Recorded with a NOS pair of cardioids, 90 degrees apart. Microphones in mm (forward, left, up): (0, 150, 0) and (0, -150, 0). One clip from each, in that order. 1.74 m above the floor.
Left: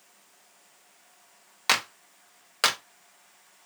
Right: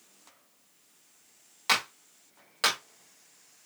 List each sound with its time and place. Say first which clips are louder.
1.7 s a clap: left 2 dB; 35° left, 1.1 m